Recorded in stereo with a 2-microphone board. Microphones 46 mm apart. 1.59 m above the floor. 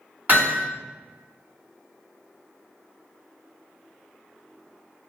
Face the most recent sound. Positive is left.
turn(degrees=-45)  # may be behind; listen again after turning